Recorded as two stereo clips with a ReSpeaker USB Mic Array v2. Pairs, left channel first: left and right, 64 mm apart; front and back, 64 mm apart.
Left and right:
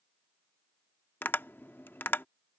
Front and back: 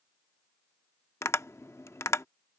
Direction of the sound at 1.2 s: 35° left.